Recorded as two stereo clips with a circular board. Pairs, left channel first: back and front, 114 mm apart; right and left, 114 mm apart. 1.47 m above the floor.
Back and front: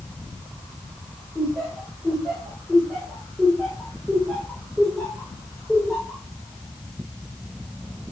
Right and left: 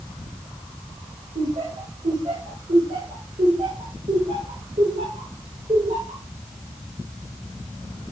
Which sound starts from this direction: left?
Laughter, at 1.4 s.